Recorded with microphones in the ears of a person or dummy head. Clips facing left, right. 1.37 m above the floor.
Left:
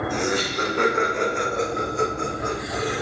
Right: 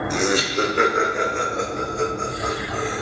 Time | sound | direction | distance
0.1 | laughter | 65° right (ahead or behind) | 0.8 m